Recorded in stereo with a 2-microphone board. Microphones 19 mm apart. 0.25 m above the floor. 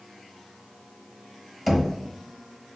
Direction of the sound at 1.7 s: 5° right (ahead or behind).